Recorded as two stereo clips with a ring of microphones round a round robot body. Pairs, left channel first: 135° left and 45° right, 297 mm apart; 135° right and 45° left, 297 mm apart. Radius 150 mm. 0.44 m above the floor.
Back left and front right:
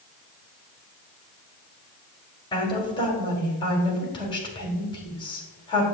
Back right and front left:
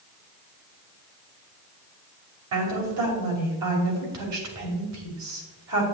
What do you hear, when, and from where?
2.5 s a woman speaking: 65° left, 3 m